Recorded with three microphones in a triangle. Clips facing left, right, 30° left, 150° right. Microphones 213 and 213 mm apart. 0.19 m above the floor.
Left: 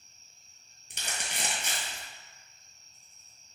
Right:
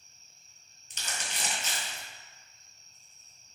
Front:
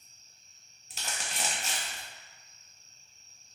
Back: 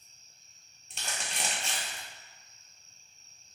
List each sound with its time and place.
0.9 s crumpling: 115° left, 1.2 m